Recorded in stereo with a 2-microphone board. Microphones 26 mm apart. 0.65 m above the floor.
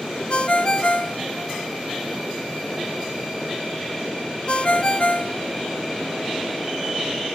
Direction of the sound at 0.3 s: 45° left (ahead or behind).